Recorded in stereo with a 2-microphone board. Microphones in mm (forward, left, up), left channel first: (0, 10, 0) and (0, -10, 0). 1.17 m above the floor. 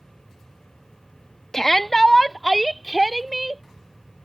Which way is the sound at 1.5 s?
30° left (ahead or behind).